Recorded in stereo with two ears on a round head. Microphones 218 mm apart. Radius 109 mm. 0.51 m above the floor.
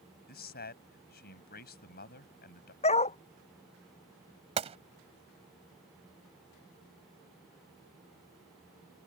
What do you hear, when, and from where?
0.3 s a man speaking: 40° left (ahead or behind)
2.8 s a dog barking: 25° left (ahead or behind)
4.6 s a gunshot: 25° right (ahead or behind)